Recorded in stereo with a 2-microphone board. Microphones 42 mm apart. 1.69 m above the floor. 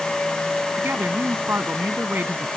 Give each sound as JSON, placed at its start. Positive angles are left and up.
{"t": 0.8, "sound": "a man speaking", "side_deg": -50}